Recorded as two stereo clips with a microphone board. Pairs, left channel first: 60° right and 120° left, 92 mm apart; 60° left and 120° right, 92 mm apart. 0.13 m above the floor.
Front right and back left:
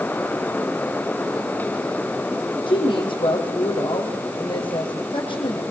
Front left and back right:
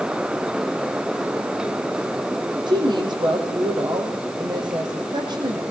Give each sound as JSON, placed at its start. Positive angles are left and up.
{"t": 2.7, "sound": "a woman speaking", "azimuth_deg": -85, "distance_m": 5.5}